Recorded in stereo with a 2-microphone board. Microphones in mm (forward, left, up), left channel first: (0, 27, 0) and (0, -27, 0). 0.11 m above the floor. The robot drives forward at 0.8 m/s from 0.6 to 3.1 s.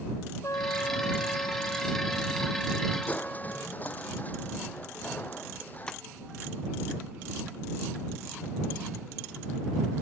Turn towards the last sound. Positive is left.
turn(degrees=15)  # may be behind; listen again after turning